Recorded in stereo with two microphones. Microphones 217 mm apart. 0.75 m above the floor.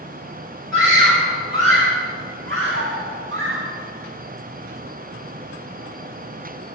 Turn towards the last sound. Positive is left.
turn(degrees=-65)  # may be behind; listen again after turning